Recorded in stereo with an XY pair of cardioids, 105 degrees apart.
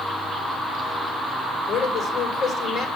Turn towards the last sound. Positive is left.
turn(degrees=60)